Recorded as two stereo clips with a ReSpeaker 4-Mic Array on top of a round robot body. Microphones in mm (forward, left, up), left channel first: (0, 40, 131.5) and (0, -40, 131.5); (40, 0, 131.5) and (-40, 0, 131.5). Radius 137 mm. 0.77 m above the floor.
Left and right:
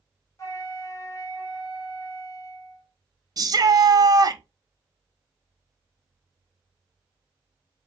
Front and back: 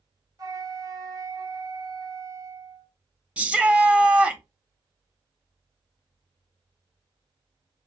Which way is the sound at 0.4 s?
140° left.